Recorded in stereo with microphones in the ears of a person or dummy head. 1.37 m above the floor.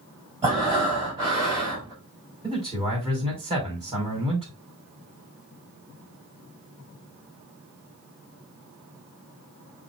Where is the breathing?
25° right (ahead or behind), 5 m.